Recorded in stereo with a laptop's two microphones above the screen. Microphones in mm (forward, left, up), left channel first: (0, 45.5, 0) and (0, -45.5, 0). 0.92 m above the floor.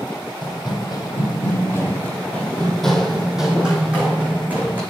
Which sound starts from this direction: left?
Running footsteps, at 0.4 s.